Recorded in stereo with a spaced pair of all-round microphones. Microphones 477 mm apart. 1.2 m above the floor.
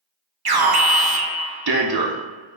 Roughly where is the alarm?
Right.